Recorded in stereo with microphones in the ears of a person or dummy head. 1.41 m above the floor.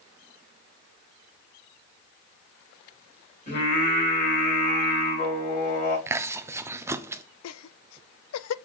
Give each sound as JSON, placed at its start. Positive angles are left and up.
{"t": 3.5, "sound": "singing", "side_deg": 45, "distance_m": 5.0}
{"t": 6.1, "sound": "chewing", "side_deg": -15, "distance_m": 0.5}
{"t": 7.4, "sound": "laughter", "side_deg": 85, "distance_m": 0.6}